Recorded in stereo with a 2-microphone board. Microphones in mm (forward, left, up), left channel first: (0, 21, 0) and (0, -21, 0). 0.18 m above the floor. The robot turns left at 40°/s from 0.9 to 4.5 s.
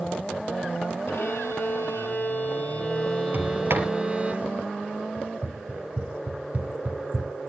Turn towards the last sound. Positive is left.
turn(degrees=-25)  # may be behind; listen again after turning